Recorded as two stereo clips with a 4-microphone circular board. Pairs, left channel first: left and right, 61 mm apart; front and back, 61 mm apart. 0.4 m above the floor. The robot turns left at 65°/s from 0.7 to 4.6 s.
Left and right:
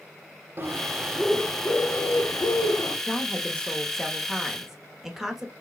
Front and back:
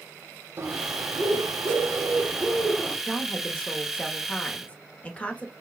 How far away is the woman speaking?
About 0.8 m.